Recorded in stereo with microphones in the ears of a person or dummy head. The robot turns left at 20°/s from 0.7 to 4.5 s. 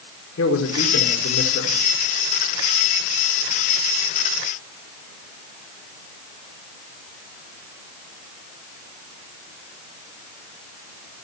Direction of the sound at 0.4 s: 75° left (ahead or behind).